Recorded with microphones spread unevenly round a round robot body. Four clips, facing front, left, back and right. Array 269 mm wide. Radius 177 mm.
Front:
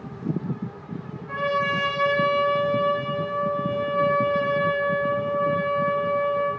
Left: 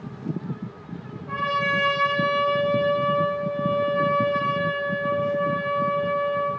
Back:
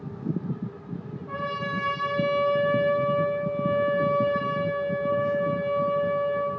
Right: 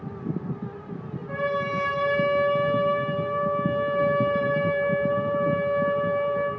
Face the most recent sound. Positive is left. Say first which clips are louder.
# left 2 dB, front 6 dB
turn(degrees=155)